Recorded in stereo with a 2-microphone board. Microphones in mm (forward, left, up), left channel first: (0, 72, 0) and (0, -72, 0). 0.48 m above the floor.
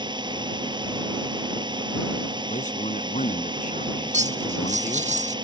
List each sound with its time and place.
0.0 s a drone: 30° right (ahead or behind)
2.5 s a man speaking: 60° left (ahead or behind)
4.1 s cutlery clinking: 55° right (ahead or behind)